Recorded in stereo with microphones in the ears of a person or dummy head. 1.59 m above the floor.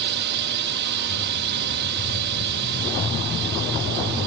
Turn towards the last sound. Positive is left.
turn(degrees=-50)  # may be behind; listen again after turning